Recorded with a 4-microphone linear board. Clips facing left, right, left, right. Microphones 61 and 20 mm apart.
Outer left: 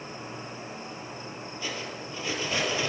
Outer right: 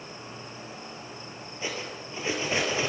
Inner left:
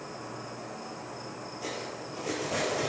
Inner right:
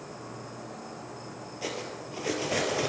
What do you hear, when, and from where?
0.0 s an insect: 30° left (ahead or behind), 1.7 m
1.6 s cutlery clinking: 25° right (ahead or behind), 1.7 m